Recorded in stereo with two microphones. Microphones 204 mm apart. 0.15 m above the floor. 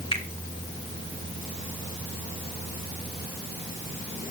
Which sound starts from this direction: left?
A finger snap, at 0.1 s.